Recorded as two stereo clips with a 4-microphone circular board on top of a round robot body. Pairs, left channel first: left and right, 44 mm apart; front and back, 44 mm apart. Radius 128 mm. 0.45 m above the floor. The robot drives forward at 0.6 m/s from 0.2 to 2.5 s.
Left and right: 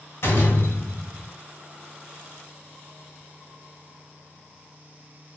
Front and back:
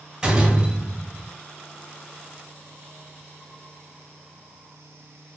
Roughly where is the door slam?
Left.